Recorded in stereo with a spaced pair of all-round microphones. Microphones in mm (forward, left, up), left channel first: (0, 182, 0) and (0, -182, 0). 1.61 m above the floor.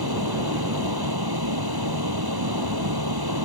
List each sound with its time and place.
0.0 s a fan: 80° right